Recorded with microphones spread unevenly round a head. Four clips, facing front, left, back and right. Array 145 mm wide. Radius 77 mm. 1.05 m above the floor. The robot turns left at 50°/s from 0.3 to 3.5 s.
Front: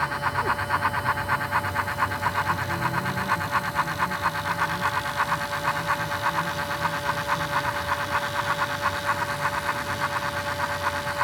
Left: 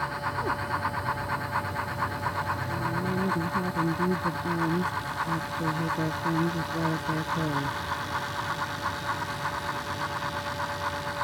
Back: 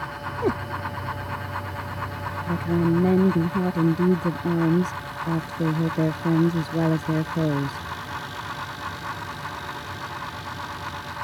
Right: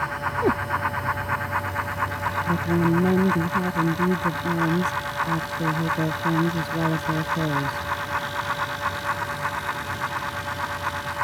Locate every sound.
0.4 s a cat meowing: 115° right; by 0.6 s 125° right
2.5 s a woman speaking: 120° right; by 7.9 s 170° right